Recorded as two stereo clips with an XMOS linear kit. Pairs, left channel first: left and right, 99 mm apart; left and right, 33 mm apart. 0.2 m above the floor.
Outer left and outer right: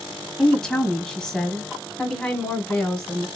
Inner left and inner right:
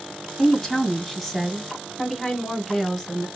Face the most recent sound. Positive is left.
turn(degrees=5)  # may be behind; listen again after turning